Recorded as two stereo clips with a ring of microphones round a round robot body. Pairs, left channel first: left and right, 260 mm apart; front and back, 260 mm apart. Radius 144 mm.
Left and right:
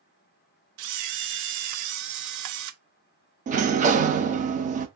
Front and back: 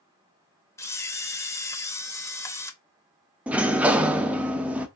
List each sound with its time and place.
0.8 s a camera shutter: 80° right, 0.5 m
3.5 s a sliding door: 100° right, 0.5 m